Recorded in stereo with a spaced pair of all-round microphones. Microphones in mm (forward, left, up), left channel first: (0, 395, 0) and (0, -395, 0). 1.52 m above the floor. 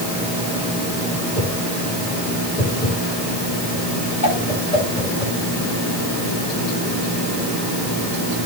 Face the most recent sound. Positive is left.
turn(degrees=80)